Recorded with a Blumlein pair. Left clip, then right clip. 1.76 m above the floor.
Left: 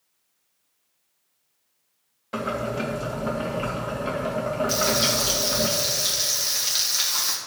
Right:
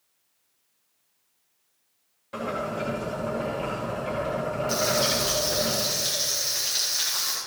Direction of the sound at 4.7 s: 15° left.